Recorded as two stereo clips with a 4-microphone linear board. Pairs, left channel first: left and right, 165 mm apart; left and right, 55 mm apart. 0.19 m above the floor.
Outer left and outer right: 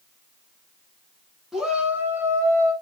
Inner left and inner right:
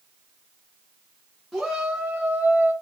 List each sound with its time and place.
1.5 s a shout: centre (ahead or behind), 2.5 m; by 2.7 s 25° right (ahead or behind), 2.5 m